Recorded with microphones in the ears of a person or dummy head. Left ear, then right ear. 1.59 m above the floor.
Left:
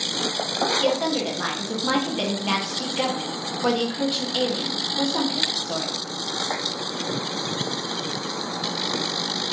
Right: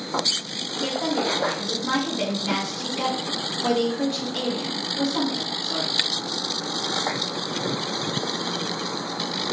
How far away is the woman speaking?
About 1.0 m.